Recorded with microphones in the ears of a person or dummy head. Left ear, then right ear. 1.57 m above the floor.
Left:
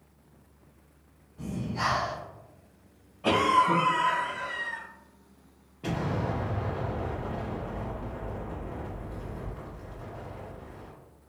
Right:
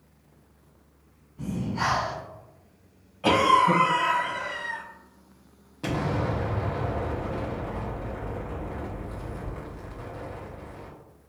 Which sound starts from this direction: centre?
Breathing, at 1.4 s.